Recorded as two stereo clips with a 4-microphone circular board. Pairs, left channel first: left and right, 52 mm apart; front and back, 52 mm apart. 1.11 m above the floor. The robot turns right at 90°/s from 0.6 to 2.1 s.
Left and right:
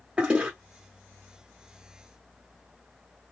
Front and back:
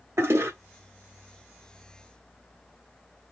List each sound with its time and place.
0.2 s a toilet flushing: 155° right, 1.3 m